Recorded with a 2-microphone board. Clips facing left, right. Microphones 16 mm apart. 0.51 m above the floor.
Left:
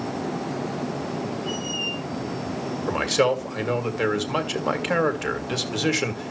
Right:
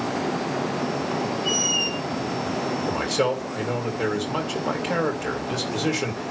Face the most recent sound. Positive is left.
turn(degrees=25)  # may be behind; listen again after turning